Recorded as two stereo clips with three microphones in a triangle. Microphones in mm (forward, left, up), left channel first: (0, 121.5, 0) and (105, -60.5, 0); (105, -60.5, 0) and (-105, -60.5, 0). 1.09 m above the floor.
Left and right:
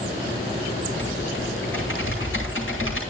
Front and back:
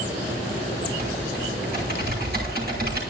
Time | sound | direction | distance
0.9 | typing on a keyboard | 140° left | 9.5 m